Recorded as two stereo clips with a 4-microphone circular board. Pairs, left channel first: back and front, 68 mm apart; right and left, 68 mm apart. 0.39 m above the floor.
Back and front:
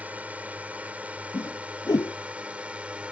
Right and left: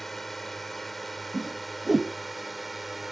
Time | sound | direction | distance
0.0 | a drone | 10° right | ?
1.3 | a whoosh | 175° left | ?